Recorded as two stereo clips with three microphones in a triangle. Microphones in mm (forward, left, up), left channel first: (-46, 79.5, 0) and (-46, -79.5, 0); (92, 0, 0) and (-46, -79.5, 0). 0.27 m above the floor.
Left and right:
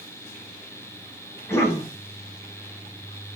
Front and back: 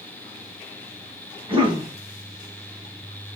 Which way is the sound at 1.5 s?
160° left.